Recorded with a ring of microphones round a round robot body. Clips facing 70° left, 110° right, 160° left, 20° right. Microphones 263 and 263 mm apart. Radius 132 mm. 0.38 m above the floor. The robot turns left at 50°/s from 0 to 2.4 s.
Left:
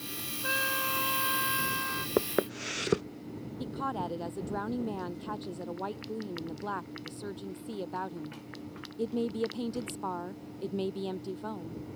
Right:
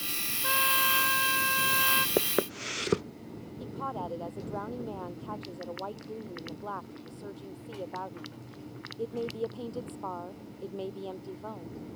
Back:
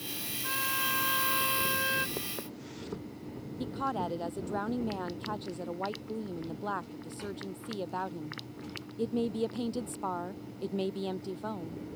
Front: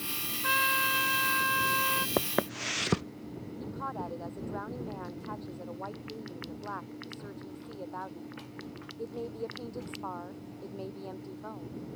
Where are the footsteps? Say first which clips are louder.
Even, front 9 dB; 15° right; by 3.1 s 25° right.